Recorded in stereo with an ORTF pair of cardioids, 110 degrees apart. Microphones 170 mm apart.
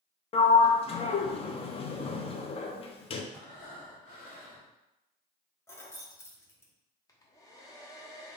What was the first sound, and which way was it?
A sliding door, 35° left.